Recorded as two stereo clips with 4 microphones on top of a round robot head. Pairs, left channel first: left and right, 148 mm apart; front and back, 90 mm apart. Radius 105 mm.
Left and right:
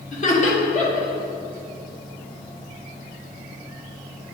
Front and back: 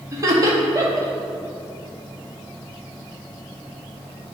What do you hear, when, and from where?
0.1 s laughter: 125° left, 2 m